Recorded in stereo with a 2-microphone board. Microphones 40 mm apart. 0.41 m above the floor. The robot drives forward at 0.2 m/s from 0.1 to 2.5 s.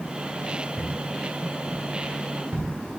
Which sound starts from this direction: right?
Footsteps, at 0.8 s.